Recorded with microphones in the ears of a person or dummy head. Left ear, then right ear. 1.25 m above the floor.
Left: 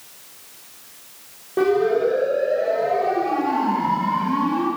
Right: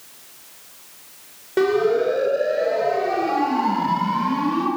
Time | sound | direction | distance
1.6 | a siren | 55° right (ahead or behind) | 7 m